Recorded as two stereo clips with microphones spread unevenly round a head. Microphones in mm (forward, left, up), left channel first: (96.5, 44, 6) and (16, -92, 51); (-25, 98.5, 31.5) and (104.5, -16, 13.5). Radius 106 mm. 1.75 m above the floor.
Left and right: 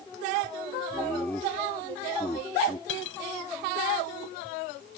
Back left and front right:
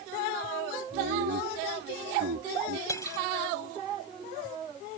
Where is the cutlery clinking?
70° left.